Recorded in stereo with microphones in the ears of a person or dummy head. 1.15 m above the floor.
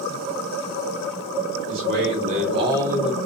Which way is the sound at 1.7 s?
60° right (ahead or behind).